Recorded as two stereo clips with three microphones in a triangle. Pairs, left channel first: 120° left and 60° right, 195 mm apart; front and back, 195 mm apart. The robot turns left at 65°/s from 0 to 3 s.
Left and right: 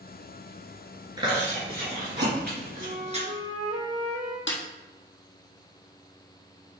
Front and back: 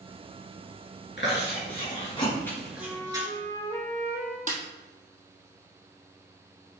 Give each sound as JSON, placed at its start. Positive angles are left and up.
{"t": 1.2, "sound": "chewing", "azimuth_deg": 5, "distance_m": 3.5}
{"t": 2.8, "sound": "a flute", "azimuth_deg": -65, "distance_m": 3.5}
{"t": 4.5, "sound": "a snare drum", "azimuth_deg": 130, "distance_m": 1.8}